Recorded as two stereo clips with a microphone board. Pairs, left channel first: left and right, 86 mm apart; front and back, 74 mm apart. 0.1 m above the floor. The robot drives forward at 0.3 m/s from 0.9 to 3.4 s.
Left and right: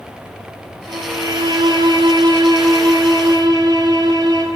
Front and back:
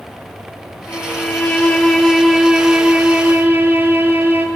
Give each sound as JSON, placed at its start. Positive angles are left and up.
{"t": 0.9, "sound": "a violin", "azimuth_deg": -55, "distance_m": 0.8}